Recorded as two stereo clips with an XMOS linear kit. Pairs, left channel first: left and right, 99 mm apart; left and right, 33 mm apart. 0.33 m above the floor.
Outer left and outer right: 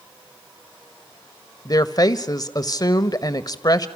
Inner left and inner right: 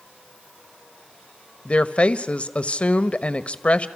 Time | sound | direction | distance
1.6 | a woman speaking | 40° left (ahead or behind) | 1.2 m